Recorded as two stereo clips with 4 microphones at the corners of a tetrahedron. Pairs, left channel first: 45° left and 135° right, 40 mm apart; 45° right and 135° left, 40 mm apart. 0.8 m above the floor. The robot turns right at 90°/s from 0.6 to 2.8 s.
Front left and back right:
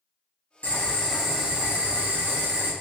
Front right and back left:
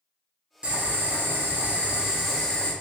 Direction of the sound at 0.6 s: 80° left.